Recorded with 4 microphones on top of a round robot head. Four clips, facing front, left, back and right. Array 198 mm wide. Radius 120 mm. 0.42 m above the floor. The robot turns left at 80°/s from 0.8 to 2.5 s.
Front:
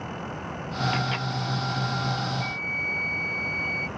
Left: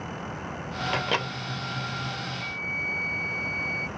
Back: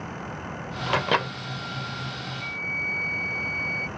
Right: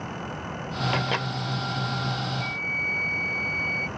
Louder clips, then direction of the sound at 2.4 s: Right 3 dB, front 2 dB; 75° right.